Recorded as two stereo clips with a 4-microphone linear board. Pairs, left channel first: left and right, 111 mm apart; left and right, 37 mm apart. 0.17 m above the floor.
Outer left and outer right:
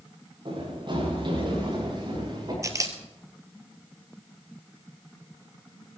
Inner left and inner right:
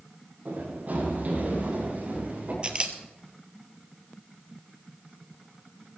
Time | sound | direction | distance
0.5 | running footsteps | 50° right (ahead or behind) | 9 m
2.6 | a camera shutter | 30° right (ahead or behind) | 1.4 m